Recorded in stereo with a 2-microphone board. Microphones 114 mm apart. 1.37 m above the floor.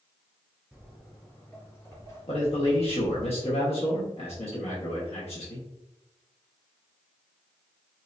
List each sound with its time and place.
0.7 s footsteps: 5° right (ahead or behind), 1.7 m; by 3.3 s 45° left (ahead or behind), 3 m
2.3 s a man speaking: 60° left (ahead or behind), 1.1 m